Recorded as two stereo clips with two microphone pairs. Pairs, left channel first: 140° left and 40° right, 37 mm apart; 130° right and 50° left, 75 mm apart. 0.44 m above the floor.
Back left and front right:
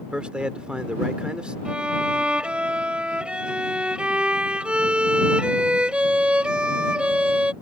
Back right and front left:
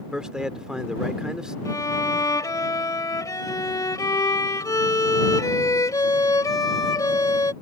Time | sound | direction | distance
0.1 | a man speaking | 20° right | ?
1.6 | a violin | 100° right | ?